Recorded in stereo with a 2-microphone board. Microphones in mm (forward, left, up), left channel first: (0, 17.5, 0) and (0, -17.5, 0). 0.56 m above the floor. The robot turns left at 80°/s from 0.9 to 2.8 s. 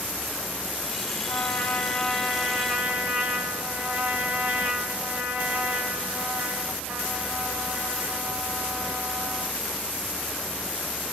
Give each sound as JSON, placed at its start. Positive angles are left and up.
{"t": 1.3, "sound": "a trumpet", "azimuth_deg": 70, "distance_m": 1.8}